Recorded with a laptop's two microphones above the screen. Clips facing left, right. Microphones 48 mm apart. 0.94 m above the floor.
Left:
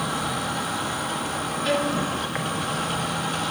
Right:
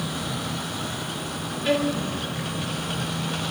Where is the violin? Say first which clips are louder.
Right 1 dB; 5° right (ahead or behind), 1.0 m.